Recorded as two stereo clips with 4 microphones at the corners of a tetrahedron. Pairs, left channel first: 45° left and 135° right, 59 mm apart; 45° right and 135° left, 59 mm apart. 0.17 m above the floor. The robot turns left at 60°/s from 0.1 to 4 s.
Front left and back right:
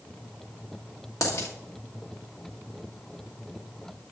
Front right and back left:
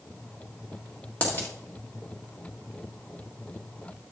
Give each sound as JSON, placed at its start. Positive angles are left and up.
{"t": 1.2, "sound": "a dropped coin", "azimuth_deg": 20, "distance_m": 1.7}